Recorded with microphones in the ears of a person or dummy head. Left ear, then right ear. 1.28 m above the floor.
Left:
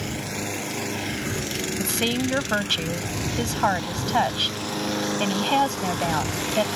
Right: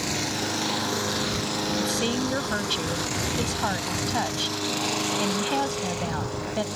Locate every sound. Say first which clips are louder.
1.8 s a woman speaking: left 1 dB; 15° left (ahead or behind)